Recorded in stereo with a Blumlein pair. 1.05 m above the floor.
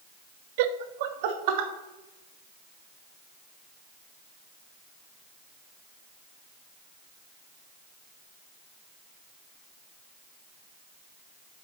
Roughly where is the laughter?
Ahead right.